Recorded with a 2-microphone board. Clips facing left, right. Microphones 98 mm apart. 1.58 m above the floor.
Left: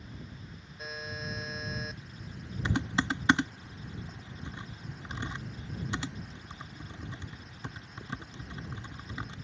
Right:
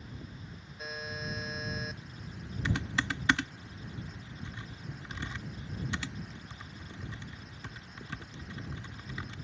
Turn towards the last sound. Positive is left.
turn(degrees=25)  # may be behind; listen again after turning